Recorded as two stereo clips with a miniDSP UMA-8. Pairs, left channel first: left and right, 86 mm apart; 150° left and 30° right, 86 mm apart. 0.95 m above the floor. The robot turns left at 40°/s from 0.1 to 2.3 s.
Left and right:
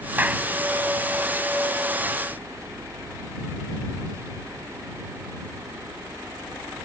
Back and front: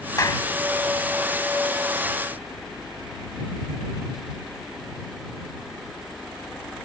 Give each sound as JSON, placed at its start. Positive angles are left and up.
{"t": 0.2, "sound": "a clap", "azimuth_deg": -160}